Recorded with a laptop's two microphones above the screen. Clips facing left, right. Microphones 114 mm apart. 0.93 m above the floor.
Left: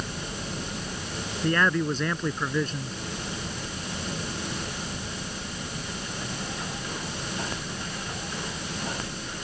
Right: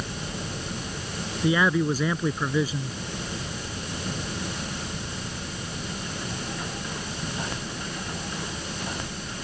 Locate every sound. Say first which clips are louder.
1.4 s a man speaking: right 2 dB; 5° right (ahead or behind)